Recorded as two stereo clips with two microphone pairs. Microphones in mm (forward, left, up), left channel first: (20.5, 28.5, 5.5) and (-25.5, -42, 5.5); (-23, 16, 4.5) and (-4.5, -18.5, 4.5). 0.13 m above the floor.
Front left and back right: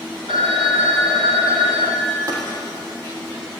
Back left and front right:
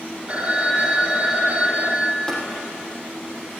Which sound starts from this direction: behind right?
A phone ringing, at 0.3 s.